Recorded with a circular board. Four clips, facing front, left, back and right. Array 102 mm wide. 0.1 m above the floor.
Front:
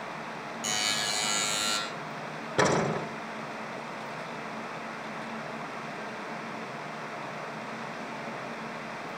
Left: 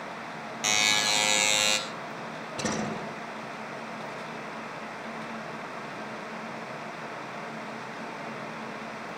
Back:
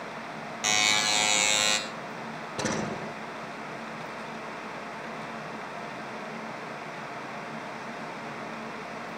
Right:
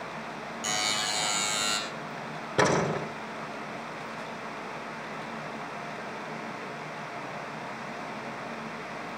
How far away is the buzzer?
About 3 m.